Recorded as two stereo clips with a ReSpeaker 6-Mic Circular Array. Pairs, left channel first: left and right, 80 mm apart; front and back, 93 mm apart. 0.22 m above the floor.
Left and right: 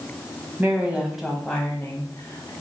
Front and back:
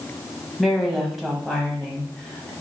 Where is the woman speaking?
90° right, 1.0 m; by 2.5 s 90° left, 1.2 m.